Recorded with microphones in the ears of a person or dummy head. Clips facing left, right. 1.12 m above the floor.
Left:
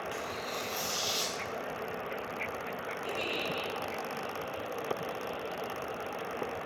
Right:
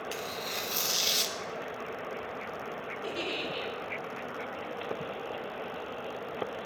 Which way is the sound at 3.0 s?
45° right (ahead or behind).